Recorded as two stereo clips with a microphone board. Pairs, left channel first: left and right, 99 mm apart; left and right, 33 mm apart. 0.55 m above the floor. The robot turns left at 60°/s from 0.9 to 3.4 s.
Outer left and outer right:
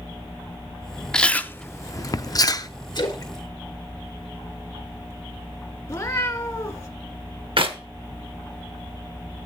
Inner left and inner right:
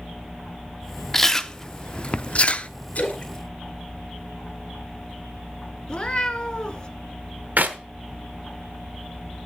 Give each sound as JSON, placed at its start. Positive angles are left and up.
{"t": 1.1, "sound": "chewing", "side_deg": 5, "distance_m": 0.5}
{"t": 3.0, "sound": "a splash", "side_deg": 50, "distance_m": 2.0}
{"t": 5.9, "sound": "a cat meowing", "side_deg": 30, "distance_m": 1.6}
{"t": 7.6, "sound": "a clap", "side_deg": -65, "distance_m": 1.1}